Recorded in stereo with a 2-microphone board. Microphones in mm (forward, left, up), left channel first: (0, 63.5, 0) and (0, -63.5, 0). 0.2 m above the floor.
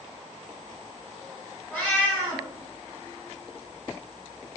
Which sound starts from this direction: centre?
A cat meowing, at 1.7 s.